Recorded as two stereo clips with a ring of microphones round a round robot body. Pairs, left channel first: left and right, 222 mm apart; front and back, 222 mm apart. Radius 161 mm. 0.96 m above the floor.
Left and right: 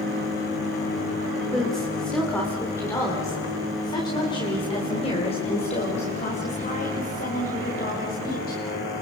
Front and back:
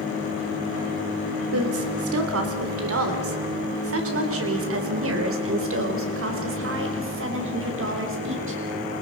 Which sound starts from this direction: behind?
A woman speaking, at 1.5 s.